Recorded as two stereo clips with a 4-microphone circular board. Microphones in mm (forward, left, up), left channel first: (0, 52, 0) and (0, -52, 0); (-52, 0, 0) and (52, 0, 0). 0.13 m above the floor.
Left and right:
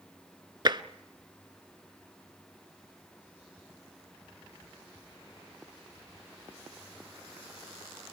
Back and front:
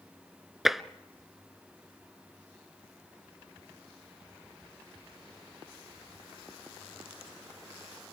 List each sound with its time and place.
0.7 s tapping: 85° right, 0.7 m